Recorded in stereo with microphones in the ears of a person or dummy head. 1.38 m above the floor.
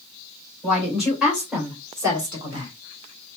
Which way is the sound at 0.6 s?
Centre (ahead or behind).